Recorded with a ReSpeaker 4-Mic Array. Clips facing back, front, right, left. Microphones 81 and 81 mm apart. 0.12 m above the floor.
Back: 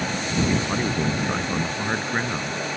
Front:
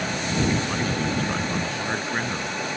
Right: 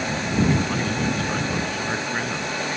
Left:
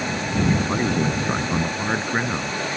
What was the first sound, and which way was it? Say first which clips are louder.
A man speaking: back 1 dB, left 1 dB; 120° left.